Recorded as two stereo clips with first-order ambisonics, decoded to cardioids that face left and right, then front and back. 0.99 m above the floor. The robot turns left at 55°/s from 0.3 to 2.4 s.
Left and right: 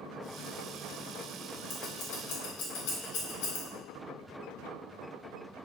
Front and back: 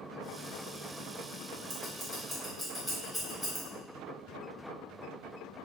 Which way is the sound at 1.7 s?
135° left.